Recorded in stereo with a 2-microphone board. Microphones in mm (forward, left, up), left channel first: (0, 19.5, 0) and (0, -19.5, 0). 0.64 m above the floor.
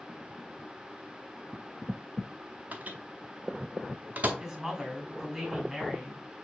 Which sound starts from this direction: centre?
A woman speaking, at 4.4 s.